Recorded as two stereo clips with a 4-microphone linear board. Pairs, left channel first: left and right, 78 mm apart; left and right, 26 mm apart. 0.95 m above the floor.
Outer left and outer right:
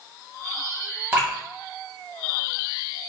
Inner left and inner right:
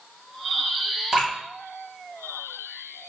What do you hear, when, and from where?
1.1 s dripping: 25° right (ahead or behind), 1.3 m